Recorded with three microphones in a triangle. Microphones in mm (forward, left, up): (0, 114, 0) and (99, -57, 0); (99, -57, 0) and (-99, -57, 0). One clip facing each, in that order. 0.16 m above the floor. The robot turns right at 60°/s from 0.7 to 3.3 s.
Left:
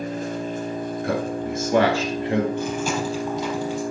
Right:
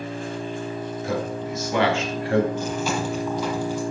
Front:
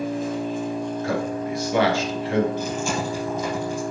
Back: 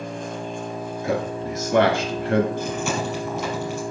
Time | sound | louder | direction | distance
0.0 | an engine running | left 3 dB, front 5 dB | 85° left | 1.3 m
1.0 | a man speaking | left 2 dB, back 3 dB | 110° left | 2.5 m
2.6 | chewing | left 1 dB, even | 145° left | 4.5 m